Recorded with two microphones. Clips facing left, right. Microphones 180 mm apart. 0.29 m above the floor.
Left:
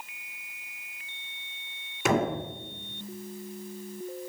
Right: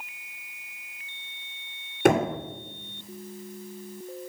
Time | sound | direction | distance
2.0 | knocking | 60° right (ahead or behind) | 2.5 m